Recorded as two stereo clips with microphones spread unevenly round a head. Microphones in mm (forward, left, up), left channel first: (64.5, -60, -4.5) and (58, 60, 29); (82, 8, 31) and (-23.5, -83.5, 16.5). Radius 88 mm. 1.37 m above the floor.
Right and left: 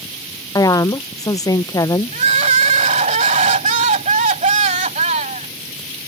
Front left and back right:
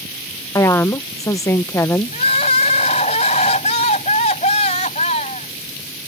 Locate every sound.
0.6 s a woman speaking: 30° right
2.1 s crying: 95° left